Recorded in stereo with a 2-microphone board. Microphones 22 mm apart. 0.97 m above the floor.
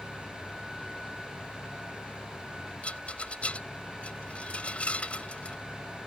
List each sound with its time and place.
0.0 s an engine running: 65° left (ahead or behind)
2.8 s a rattle: 75° left (ahead or behind)